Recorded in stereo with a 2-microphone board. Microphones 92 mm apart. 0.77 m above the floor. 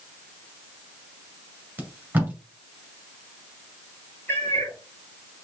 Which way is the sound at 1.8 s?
20° right (ahead or behind).